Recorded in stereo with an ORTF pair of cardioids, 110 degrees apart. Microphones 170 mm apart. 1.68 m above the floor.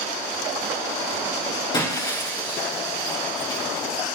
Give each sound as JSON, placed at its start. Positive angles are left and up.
{"t": 1.7, "sound": "breaking glass", "azimuth_deg": 25, "distance_m": 6.5}